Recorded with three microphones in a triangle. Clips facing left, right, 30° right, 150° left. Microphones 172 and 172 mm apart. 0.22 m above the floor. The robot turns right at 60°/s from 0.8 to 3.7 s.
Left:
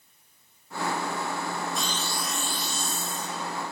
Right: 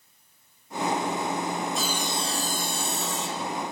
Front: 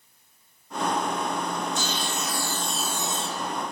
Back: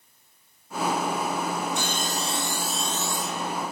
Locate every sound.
1.8 s sawing: straight behind, 3 m; by 3.5 s 75° right, 3 m